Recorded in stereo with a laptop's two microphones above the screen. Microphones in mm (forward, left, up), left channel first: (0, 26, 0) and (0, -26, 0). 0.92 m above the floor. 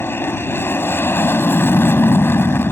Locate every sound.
0.0 s an aircraft: 45° left (ahead or behind)